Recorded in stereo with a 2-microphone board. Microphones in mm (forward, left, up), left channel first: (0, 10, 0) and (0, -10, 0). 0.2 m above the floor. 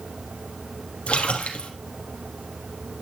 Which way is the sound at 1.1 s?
70° left (ahead or behind).